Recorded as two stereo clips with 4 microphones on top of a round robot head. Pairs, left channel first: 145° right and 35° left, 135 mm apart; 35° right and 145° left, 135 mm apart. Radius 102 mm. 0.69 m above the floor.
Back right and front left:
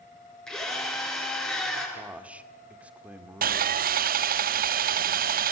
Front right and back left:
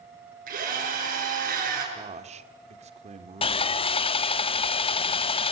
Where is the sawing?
20° left, 0.6 m.